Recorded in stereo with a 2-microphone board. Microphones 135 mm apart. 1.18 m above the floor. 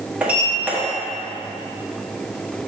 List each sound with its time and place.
0.2 s a sliding door: 10° right (ahead or behind), 1.3 m